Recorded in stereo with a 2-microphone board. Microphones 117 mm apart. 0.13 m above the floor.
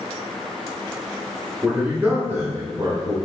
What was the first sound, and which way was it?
A man speaking, 10° right (ahead or behind).